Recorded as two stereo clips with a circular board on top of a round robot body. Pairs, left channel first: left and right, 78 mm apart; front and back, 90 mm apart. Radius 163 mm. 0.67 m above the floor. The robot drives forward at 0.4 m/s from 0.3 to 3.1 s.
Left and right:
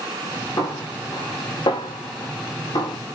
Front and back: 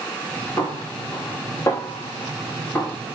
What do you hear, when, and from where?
0.6 s a snare drum: 55° left, 6 m; by 3.0 s 65° left, 6 m